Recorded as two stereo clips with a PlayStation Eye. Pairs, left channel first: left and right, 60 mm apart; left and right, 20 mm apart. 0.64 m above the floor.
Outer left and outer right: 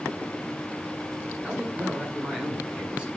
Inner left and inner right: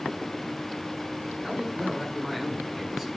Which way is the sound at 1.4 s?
20° right (ahead or behind).